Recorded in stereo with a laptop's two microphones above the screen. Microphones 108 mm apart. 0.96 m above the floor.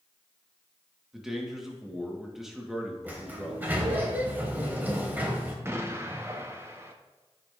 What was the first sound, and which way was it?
A man speaking, centre (ahead or behind).